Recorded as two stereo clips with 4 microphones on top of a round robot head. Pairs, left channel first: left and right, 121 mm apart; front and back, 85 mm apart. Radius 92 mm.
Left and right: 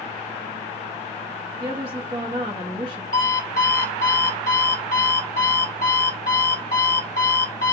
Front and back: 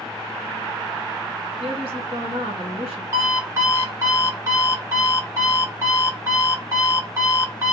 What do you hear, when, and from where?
1.6 s a woman speaking: 155° right, 1.8 m
3.1 s an alarm clock: 125° left, 1.5 m